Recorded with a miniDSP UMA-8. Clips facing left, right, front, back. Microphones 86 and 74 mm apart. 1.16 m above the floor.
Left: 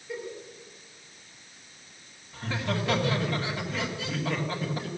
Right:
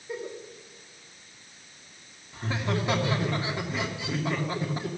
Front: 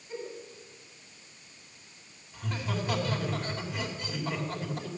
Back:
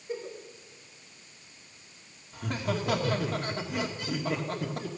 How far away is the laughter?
About 2 m.